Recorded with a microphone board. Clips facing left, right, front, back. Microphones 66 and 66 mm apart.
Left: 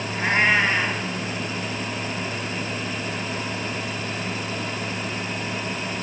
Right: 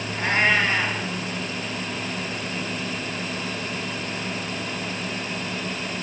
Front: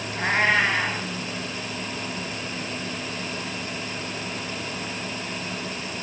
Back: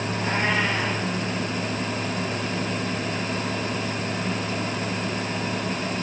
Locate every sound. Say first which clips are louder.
0.1 s a cat meowing: left 1 dB, front 4 dB; 10° left, 4.5 m